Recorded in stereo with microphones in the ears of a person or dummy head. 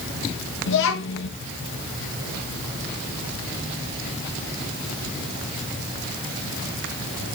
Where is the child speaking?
70° left (ahead or behind), 1.4 m.